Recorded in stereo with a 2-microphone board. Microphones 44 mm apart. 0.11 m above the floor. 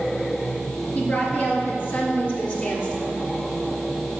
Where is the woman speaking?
35° left (ahead or behind), 2.5 m; by 3.1 s 40° left (ahead or behind), 2.5 m.